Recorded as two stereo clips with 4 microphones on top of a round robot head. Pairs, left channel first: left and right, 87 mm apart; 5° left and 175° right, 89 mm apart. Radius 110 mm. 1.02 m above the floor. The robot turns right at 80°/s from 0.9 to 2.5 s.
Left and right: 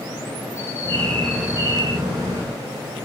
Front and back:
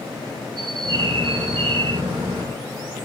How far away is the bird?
About 5 m.